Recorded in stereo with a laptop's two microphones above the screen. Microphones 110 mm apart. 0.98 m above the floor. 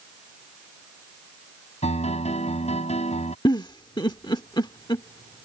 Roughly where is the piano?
Left.